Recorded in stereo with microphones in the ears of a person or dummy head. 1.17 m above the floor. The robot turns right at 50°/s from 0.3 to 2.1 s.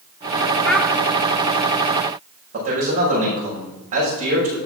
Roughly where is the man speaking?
Right.